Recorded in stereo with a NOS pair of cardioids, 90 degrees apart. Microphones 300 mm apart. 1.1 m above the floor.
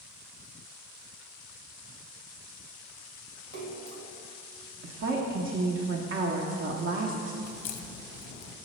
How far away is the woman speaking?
About 0.8 m.